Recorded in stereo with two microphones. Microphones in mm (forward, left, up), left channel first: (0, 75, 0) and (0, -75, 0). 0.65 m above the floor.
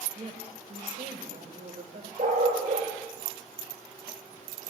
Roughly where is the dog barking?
Right.